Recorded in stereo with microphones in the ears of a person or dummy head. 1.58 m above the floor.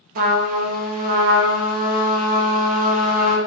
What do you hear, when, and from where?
0.1 s a trumpet: 50° right (ahead or behind), 0.7 m